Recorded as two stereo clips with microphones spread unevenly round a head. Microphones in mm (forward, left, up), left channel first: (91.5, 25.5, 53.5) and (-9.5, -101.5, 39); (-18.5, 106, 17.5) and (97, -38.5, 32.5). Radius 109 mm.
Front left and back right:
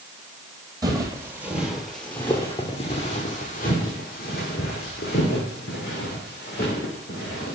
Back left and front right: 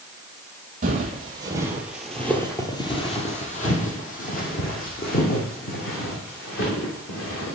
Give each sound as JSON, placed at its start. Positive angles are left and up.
{"t": 0.8, "sound": "footsteps", "azimuth_deg": -60, "distance_m": 1.5}